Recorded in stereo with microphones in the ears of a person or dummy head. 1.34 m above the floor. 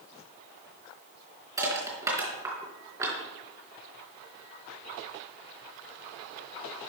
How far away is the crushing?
About 3.5 m.